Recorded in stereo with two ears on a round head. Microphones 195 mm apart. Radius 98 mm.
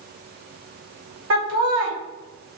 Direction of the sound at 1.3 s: 65° right (ahead or behind).